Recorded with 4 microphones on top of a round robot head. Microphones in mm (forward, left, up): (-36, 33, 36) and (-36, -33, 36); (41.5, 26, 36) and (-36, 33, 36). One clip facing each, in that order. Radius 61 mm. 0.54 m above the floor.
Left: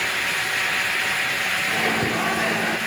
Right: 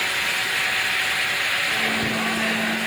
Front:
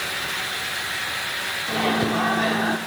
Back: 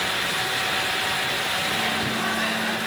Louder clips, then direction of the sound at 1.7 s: Left 1 dB, front 4 dB; 25° left.